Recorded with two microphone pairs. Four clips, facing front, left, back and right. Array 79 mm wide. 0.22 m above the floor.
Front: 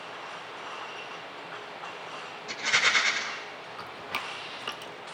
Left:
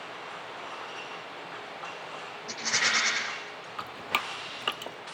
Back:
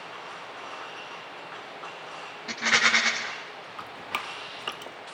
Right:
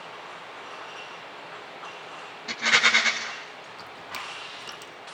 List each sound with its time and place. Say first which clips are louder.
2.5 s a rattle: right 7 dB, back 3 dB; 140° right, 9 m
3.8 s dripping: left 7 dB, back 2 dB; 110° left, 1.0 m